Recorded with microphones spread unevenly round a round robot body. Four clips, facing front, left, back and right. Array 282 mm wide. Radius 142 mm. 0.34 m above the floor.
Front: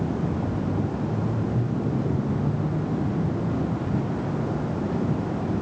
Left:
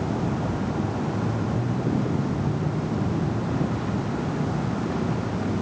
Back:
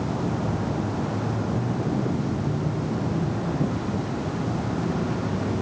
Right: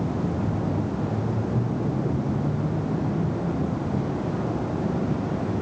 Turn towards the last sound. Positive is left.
No sound to turn to.